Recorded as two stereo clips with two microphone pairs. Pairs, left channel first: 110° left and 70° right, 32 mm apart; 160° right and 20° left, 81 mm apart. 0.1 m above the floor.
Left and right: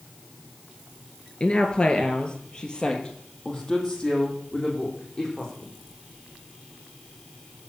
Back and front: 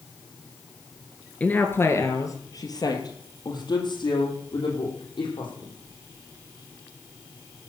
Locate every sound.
1.4 s a woman speaking: 140° left, 1.8 m; by 5.7 s straight behind, 6 m